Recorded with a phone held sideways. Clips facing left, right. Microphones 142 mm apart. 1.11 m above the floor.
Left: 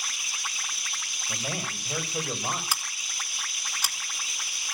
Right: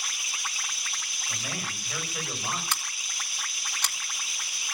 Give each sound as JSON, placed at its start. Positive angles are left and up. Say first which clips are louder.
{"t": 1.3, "sound": "a man speaking", "louder": "left 3 dB", "side_deg": 30, "distance_m": 5.5}
{"t": 2.7, "sound": "scissors", "louder": "even", "side_deg": 10, "distance_m": 3.0}